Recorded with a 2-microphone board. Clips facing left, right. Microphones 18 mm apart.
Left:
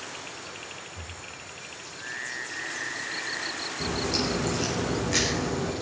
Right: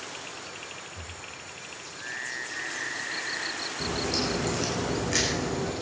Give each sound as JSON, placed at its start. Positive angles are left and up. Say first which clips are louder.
{"t": 0.9, "sound": "breathing", "louder": "even", "side_deg": -25, "distance_m": 0.9}
{"t": 3.8, "sound": "a crack", "louder": "left 1 dB", "side_deg": 5, "distance_m": 3.5}